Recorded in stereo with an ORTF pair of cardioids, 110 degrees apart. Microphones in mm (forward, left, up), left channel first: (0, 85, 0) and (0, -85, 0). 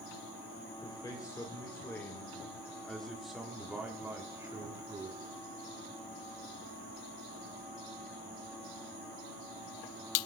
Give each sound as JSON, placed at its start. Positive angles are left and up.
{"t": 0.8, "sound": "a man speaking", "azimuth_deg": 25, "distance_m": 5.5}